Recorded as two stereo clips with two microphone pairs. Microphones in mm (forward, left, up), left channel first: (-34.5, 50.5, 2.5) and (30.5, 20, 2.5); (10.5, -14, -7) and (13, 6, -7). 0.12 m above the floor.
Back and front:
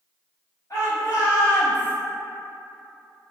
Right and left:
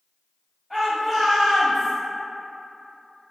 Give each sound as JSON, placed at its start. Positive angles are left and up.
{"t": 0.7, "sound": "a shout", "azimuth_deg": 180, "distance_m": 1.9}